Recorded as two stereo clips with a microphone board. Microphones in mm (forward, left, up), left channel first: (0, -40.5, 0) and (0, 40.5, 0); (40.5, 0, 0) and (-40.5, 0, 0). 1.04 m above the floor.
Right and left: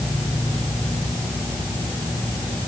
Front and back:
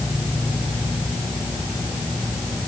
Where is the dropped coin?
No dropped coin in this recording.